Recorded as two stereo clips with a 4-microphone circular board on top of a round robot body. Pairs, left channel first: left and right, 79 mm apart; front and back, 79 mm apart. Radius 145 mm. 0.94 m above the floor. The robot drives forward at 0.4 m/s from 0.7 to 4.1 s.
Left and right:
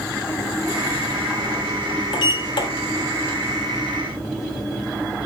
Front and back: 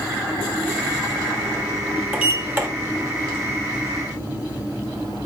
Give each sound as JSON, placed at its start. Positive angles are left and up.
{"t": 2.1, "sound": "a sliding door", "azimuth_deg": 110, "distance_m": 1.4}